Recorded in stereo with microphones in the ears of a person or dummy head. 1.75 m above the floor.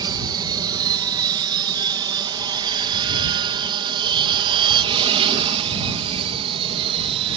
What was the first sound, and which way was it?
An aircraft, 20° right (ahead or behind).